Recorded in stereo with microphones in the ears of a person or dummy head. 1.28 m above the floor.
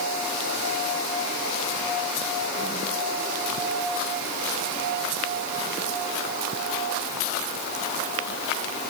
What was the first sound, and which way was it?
Only background noise.